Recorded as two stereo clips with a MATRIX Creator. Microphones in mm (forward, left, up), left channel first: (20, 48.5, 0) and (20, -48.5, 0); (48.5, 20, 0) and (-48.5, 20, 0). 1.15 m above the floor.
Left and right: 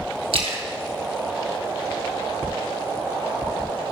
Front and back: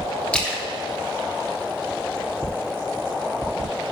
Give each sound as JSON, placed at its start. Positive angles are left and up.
{"t": 0.3, "sound": "a splash", "azimuth_deg": -80, "distance_m": 1.5}